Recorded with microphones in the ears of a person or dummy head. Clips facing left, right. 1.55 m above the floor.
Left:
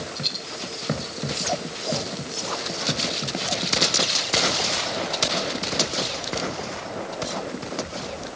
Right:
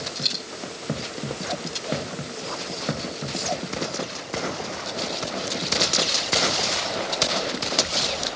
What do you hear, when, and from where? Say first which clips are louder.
0.1 s a dropped coin: even; 30° right (ahead or behind), 3.5 m